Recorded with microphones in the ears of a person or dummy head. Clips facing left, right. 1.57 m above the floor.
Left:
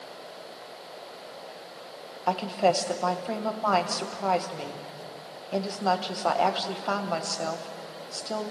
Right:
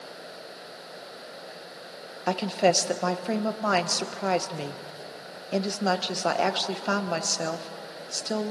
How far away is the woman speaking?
About 1.3 m.